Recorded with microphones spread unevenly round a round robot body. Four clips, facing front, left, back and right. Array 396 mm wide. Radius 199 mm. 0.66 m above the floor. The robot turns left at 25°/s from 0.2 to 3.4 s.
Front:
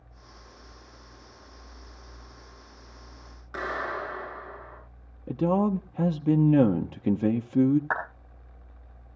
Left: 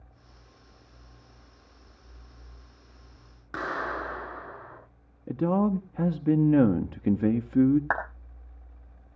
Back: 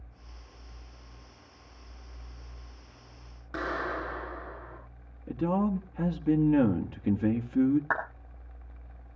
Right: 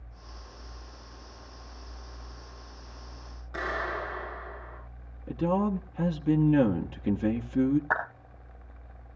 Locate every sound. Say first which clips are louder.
3.5 s a clap: left 1 dB, front 1 dB; 115° left, 7.5 m
5.3 s a man speaking: left 2 dB, front 4 dB; 35° left, 1.0 m
7.9 s a clap: even, front 1 dB; 115° left, 4.5 m